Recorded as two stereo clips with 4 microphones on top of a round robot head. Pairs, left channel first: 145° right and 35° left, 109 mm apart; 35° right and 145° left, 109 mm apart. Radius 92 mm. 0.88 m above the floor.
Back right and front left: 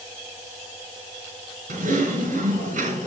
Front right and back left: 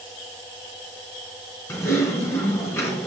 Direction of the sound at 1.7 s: 35° left.